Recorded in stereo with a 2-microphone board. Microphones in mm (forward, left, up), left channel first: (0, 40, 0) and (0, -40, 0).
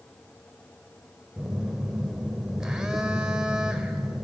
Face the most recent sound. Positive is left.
turn(degrees=-10)  # may be behind; listen again after turning